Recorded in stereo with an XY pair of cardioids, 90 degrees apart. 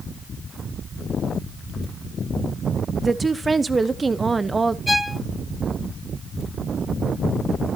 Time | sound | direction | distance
3.0 | a woman speaking | 30° right | 0.9 m
4.9 | a violin | 10° left | 0.7 m